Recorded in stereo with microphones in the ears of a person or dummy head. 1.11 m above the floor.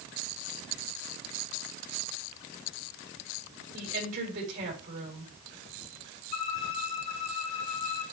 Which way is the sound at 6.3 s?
35° left (ahead or behind).